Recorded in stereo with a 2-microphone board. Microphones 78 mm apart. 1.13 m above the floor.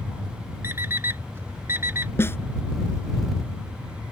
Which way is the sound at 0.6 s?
30° right (ahead or behind).